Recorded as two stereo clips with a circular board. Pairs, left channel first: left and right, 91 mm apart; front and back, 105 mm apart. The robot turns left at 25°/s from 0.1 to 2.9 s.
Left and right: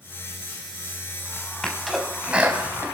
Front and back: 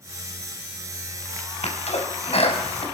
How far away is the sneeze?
About 4.5 m.